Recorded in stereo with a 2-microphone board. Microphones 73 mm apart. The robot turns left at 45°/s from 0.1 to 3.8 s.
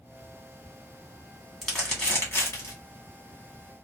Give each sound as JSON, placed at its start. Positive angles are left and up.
{"t": 1.6, "sound": "crumpling", "side_deg": 0, "distance_m": 1.5}